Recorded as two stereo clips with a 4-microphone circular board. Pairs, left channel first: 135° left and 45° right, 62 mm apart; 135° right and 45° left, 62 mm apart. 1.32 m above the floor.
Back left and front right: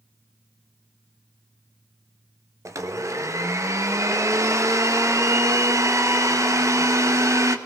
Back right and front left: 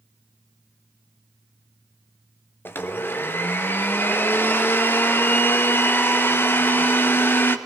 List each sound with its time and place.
2.6 s a blender: 80° right, 1.1 m